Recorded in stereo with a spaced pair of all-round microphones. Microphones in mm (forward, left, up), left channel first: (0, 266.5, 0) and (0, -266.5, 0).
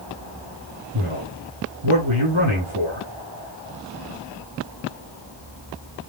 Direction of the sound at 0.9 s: 60° right (ahead or behind).